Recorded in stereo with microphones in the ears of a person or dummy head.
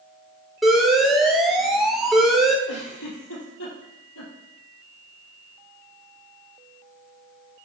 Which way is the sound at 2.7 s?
80° left.